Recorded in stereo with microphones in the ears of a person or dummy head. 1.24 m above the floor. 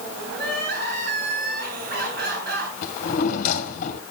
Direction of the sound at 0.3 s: 60° right (ahead or behind).